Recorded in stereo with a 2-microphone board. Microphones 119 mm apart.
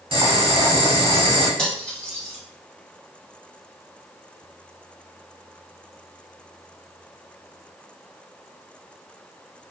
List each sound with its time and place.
0.1 s boiling: 50° right (ahead or behind), 0.9 m
1.6 s cutlery clinking: 10° left (ahead or behind), 1.3 m